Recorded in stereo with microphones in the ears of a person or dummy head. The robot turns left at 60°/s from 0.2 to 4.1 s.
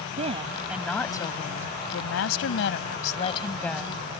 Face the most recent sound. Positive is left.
turn(degrees=-15)